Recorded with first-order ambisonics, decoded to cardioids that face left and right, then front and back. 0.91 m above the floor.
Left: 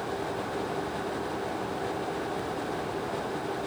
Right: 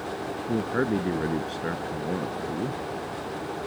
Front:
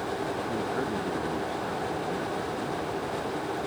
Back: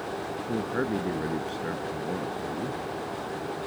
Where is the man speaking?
110° right; by 2.8 s 100° right.